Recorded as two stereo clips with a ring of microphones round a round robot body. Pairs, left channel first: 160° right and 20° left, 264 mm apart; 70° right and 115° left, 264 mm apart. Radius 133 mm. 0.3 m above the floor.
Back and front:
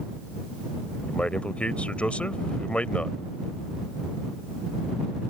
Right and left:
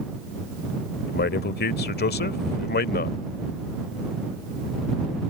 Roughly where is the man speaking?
Right.